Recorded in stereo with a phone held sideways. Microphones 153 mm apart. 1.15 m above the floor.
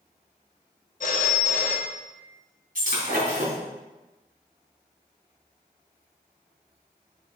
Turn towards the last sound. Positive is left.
turn(degrees=-70)  # may be behind; listen again after turning